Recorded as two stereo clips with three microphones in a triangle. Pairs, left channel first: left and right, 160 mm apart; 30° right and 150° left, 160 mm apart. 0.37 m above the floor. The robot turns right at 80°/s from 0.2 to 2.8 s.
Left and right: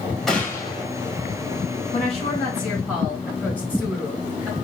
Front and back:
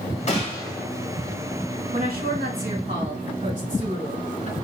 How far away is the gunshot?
About 1.7 m.